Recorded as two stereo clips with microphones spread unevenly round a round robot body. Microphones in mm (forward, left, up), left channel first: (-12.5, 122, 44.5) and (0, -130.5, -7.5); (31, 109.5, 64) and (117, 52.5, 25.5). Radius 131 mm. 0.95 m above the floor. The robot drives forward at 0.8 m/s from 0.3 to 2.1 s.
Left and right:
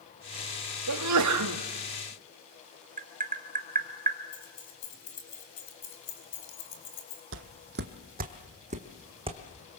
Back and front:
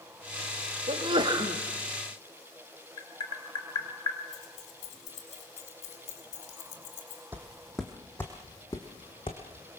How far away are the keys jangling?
About 4 m.